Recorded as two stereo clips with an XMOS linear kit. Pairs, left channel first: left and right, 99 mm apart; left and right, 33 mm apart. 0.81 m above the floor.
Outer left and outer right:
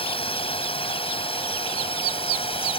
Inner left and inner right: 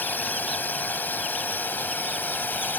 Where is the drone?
75° left (ahead or behind).